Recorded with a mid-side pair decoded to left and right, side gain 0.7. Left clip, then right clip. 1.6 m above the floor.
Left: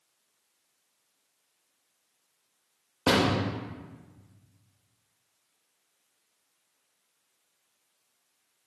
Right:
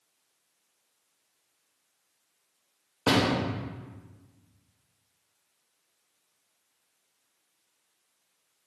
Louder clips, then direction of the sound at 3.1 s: Even; 10° left.